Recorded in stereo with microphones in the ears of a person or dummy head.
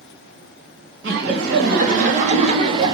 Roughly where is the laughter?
Right.